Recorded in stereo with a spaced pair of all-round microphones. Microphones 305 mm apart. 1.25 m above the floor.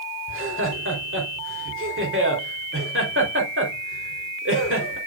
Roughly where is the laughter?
Right.